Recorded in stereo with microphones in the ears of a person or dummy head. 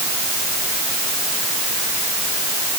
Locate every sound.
Only background noise.